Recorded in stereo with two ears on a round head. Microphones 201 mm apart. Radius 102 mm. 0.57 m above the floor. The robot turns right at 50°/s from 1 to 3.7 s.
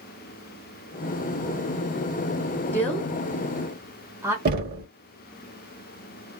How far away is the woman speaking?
About 1.0 m.